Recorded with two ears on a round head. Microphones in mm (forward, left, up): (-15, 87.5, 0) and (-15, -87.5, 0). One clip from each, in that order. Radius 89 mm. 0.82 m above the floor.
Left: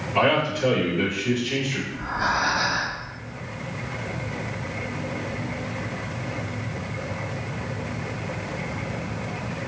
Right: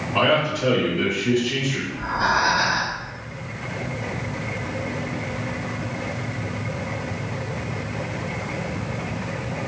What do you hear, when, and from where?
0.1 s a man speaking: 10° right (ahead or behind), 1.1 m
1.9 s breathing: 5° left (ahead or behind), 0.7 m